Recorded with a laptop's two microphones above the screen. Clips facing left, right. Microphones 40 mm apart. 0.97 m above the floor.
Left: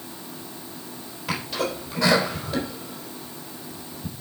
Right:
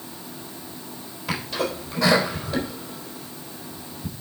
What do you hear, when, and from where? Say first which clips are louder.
1.3 s a sneeze: right 1 dB; 5° left (ahead or behind), 3.5 m